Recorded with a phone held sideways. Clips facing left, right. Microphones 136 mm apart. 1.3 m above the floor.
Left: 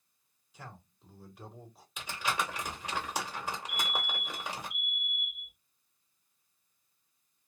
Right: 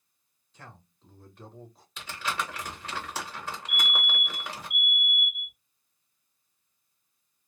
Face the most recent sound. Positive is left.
turn(degrees=-20)  # may be behind; listen again after turning